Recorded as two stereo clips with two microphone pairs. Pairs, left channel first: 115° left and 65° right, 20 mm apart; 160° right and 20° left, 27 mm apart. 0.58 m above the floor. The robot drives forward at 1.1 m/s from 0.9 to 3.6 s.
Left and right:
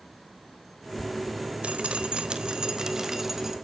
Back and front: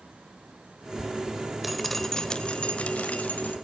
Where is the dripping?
70° right, 1.3 m; by 3.5 s 145° right, 2 m.